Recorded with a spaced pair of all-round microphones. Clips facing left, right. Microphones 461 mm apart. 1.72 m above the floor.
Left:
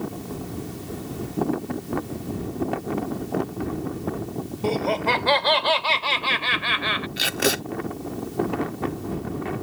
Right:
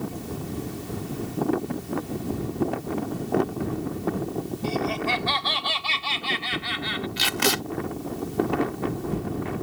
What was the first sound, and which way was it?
Laughter, 80° left.